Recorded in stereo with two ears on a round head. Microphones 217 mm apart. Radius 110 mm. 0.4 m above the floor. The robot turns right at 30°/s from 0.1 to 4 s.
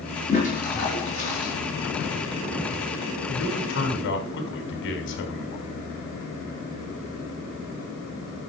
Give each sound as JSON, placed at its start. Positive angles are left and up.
{"t": 0.3, "sound": "a toilet flushing", "azimuth_deg": 30, "distance_m": 4.5}
{"t": 3.3, "sound": "a man speaking", "side_deg": 65, "distance_m": 3.0}